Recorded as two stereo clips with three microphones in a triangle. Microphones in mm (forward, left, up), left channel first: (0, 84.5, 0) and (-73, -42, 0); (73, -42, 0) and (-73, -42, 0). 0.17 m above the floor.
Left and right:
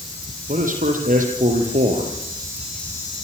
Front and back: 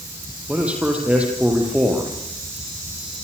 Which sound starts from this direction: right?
A man speaking, at 0.5 s.